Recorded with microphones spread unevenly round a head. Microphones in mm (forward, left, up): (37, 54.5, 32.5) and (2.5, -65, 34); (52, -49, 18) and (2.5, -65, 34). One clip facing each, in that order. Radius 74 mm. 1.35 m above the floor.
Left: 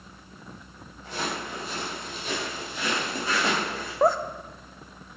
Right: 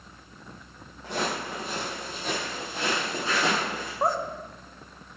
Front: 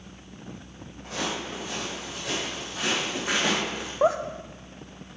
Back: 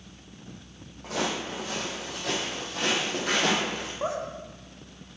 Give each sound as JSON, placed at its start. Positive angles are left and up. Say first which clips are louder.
{"t": 1.0, "sound": "footsteps", "louder": "right 2 dB, back 2 dB", "azimuth_deg": -150, "distance_m": 3.5}
{"t": 4.0, "sound": "laughter", "louder": "left 5 dB, front 9 dB", "azimuth_deg": 50, "distance_m": 0.7}